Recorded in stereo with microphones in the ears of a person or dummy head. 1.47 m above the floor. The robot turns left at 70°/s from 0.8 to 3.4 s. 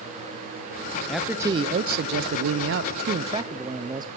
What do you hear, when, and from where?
1.1 s a man speaking: 5° left, 0.5 m; by 4.1 s 155° right, 0.5 m